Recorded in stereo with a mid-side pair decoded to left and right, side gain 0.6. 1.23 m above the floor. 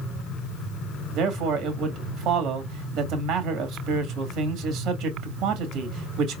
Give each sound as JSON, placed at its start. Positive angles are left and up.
{"t": 1.1, "sound": "a man speaking", "azimuth_deg": -65, "distance_m": 2.5}